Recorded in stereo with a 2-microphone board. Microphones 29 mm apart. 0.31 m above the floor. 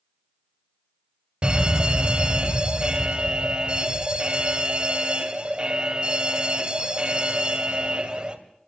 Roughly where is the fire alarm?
Right.